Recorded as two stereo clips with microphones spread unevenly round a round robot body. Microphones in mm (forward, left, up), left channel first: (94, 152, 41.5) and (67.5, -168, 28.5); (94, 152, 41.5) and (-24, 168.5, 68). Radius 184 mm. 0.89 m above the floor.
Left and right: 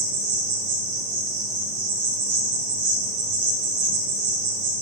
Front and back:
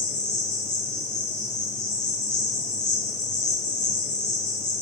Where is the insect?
75° right, 3.5 m.